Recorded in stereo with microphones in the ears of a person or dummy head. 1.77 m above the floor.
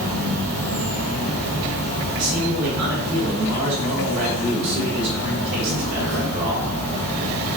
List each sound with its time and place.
0.0 s an insect: 80° right, 1.9 m
2.1 s a man speaking: 65° right (ahead or behind), 1.8 m